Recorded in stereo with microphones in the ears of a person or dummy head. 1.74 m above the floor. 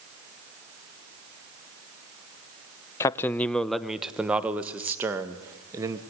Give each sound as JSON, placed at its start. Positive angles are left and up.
{"t": 3.0, "sound": "a man speaking", "side_deg": 15, "distance_m": 0.8}